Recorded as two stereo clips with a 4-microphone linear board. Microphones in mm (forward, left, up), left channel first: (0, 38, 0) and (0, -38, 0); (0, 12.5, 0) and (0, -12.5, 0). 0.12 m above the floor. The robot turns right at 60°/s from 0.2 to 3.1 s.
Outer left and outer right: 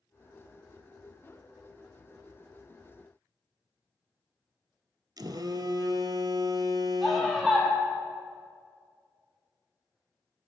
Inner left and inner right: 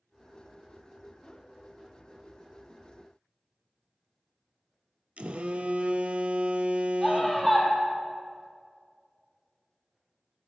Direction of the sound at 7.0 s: Centre (ahead or behind).